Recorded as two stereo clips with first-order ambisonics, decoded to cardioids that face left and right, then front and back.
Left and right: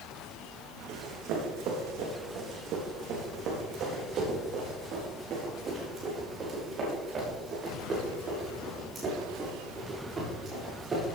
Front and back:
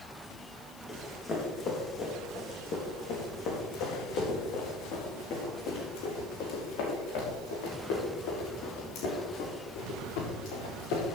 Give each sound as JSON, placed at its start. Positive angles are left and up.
{"t": 0.9, "sound": "running footsteps", "azimuth_deg": -70, "distance_m": 3.5}